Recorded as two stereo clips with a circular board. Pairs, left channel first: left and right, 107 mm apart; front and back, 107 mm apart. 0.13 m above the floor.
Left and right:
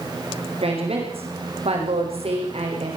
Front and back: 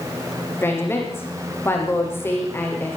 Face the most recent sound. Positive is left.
turn(degrees=-70)